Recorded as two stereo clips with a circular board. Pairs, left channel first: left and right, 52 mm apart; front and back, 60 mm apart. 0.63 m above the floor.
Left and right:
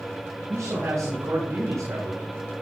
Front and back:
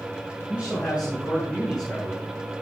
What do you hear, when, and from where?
0.5 s a man speaking: 105° right, 7.5 m; by 2.3 s 90° right, 8.5 m